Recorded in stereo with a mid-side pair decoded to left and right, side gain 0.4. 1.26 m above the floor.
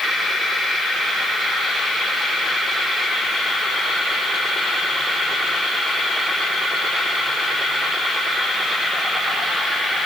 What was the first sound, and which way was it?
Only background noise.